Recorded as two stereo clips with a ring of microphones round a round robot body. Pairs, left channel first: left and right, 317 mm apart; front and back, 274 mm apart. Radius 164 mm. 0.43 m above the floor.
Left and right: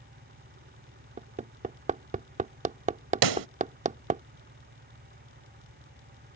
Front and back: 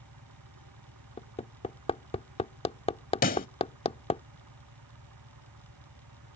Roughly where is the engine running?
Behind right.